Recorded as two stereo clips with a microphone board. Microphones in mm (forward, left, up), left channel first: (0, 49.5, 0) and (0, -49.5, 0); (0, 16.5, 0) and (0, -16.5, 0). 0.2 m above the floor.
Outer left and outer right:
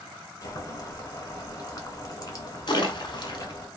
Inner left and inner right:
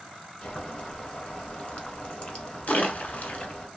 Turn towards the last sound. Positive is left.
turn(degrees=55)  # may be behind; listen again after turning